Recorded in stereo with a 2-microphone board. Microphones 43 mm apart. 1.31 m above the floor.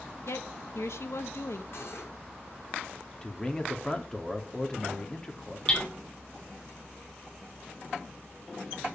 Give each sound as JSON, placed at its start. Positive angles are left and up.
{"t": 0.3, "sound": "a woman speaking", "side_deg": 70, "distance_m": 1.7}
{"t": 1.7, "sound": "cutlery clinking", "side_deg": 60, "distance_m": 7.0}
{"t": 3.2, "sound": "a man speaking", "side_deg": 20, "distance_m": 2.5}
{"t": 5.7, "sound": "hammering", "side_deg": 20, "distance_m": 5.0}